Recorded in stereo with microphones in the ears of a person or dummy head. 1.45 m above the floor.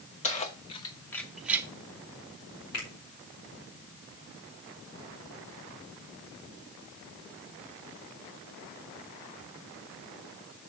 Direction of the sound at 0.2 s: 35° left (ahead or behind).